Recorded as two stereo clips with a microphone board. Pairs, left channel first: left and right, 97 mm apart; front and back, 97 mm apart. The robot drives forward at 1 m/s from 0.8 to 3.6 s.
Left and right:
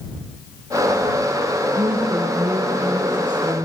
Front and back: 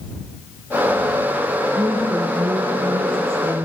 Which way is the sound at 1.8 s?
120° right.